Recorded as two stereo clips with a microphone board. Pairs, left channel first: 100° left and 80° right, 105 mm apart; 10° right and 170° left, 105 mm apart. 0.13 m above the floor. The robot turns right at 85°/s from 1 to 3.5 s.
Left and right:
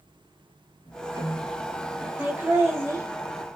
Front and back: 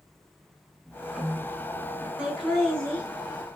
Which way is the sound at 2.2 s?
125° right.